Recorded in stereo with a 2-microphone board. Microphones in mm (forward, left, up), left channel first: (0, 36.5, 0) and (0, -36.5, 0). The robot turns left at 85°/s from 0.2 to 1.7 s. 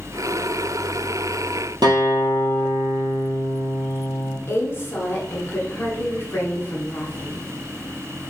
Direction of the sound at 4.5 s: 35° left (ahead or behind).